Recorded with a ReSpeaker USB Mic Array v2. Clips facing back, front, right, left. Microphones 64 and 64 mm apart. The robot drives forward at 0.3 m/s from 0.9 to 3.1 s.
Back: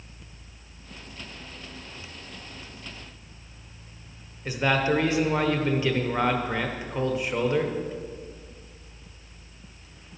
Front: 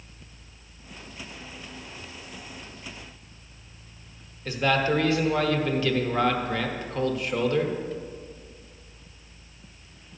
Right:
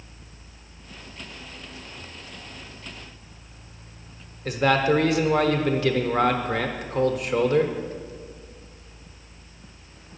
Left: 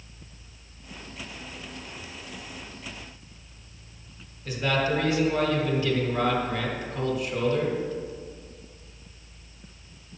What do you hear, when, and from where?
4.5 s a man speaking: 105° right, 1.0 m